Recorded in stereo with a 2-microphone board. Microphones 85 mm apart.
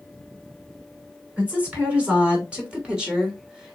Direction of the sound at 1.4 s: 15° right (ahead or behind).